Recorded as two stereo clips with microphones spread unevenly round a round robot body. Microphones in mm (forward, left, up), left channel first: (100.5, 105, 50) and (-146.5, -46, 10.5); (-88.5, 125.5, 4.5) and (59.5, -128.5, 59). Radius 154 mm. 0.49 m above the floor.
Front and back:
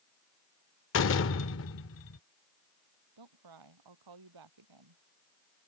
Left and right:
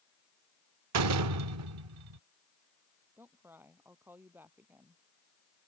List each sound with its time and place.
0.9 s a door slam: 20° right
3.2 s a woman speaking: 145° right